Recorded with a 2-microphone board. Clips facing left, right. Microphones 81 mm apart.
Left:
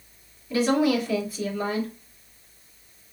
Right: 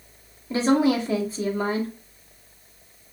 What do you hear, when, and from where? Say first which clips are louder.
0.5 s a woman speaking: right 2 dB; 30° right (ahead or behind), 1.1 m